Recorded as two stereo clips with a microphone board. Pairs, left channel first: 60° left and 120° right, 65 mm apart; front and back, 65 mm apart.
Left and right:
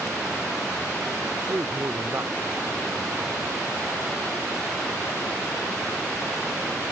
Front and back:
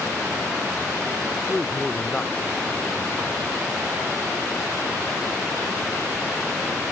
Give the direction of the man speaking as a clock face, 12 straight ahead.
2 o'clock.